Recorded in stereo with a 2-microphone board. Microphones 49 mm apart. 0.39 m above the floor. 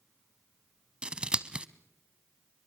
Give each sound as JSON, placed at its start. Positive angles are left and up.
{"t": 1.0, "sound": "scissors", "side_deg": -25, "distance_m": 0.7}